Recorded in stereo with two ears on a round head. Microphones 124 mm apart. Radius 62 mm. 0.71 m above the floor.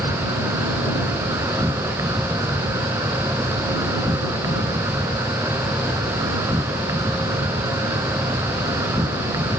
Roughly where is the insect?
Right.